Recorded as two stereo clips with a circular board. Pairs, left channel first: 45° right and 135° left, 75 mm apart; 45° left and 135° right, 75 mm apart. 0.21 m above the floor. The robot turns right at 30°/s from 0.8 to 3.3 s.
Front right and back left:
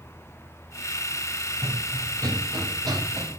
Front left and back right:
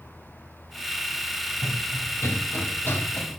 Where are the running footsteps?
90° left, 1.6 m; by 3.4 s 115° left, 3 m.